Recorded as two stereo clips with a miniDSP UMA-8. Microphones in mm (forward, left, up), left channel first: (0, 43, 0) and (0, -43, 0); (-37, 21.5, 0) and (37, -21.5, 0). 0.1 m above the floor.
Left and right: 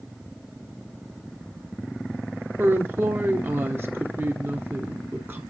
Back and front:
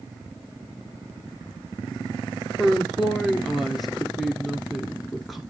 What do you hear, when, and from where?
2.6 s a woman speaking: 120° right, 1.2 m